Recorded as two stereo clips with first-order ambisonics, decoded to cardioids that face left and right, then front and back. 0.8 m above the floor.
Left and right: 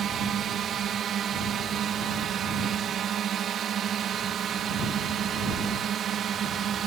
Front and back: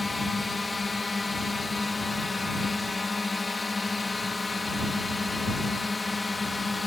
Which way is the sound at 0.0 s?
70° right.